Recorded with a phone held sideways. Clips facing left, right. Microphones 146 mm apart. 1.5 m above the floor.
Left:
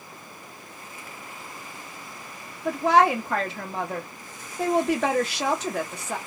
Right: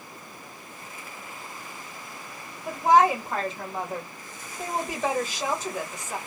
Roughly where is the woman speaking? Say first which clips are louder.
Even; left.